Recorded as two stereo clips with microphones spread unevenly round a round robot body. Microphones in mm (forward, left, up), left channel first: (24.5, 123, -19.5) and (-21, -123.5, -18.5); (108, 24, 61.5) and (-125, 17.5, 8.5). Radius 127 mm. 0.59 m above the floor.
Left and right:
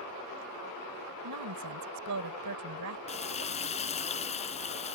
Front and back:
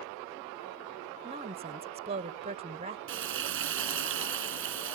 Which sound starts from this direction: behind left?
Frying, at 3.1 s.